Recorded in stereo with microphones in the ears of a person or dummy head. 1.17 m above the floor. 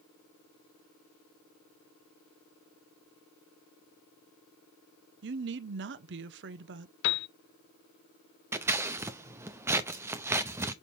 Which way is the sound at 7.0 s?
65° left (ahead or behind).